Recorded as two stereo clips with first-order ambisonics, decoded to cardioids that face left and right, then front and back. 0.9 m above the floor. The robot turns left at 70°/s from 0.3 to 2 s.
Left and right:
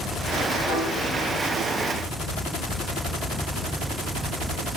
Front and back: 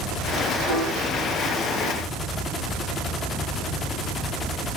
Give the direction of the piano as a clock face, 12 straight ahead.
7 o'clock.